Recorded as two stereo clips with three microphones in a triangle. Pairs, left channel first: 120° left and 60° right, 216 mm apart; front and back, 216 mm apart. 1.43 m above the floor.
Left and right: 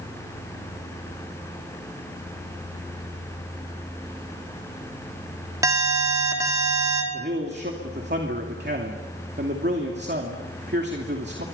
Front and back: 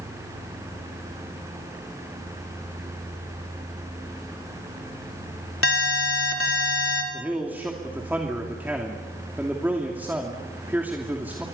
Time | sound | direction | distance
5.6 | an alarm | 15° left | 4.5 m
7.1 | a man speaking | 100° right | 2.5 m